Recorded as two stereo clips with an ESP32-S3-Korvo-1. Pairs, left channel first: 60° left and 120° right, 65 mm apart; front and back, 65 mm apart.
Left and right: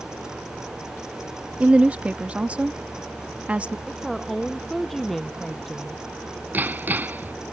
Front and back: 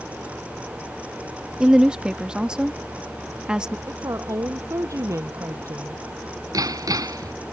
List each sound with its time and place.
1.6 s a woman speaking: 130° right
3.9 s a woman speaking: 145° left
6.5 s hammering: straight behind